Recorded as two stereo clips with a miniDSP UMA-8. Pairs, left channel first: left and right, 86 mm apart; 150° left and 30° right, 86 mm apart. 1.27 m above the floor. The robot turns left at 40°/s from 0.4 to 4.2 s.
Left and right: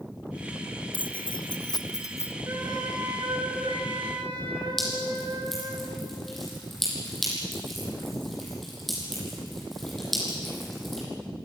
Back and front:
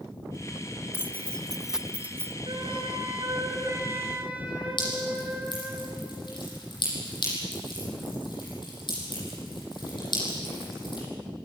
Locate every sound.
0.9 s keys jangling: 85° left, 0.6 m; by 2.4 s 30° left, 0.6 m
2.5 s a flute: 35° right, 4 m; by 5.8 s 105° right, 4 m
4.8 s dripping: 175° left, 9.5 m